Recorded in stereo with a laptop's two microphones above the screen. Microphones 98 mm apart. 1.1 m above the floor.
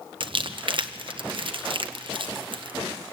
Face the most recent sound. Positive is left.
turn(degrees=-55)  # may be behind; listen again after turning